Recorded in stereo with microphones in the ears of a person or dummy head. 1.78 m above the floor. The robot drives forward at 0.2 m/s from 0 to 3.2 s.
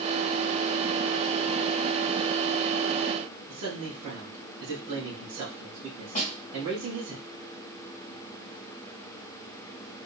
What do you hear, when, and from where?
3.5 s a man speaking: 70° right (ahead or behind), 2.5 m
6.2 s a snare drum: 40° left (ahead or behind), 2 m